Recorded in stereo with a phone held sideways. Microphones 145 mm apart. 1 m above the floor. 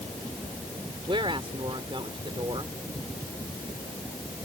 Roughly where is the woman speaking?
Right.